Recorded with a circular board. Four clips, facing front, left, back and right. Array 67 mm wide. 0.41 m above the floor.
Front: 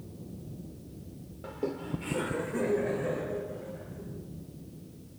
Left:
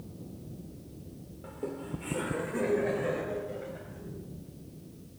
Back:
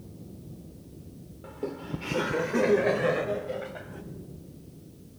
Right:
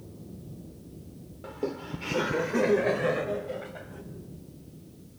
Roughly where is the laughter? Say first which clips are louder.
Right 4 dB, front 1 dB; ahead right.